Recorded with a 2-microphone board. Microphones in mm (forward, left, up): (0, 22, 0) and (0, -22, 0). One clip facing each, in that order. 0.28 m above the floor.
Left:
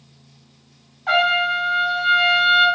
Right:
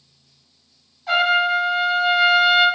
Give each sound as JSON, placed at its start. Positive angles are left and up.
{"t": 1.1, "sound": "a trumpet", "side_deg": 35, "distance_m": 1.2}